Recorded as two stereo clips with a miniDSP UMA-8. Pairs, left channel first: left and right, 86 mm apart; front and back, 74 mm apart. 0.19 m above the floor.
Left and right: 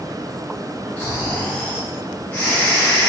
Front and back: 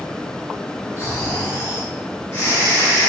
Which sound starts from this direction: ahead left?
Snoring, at 1.0 s.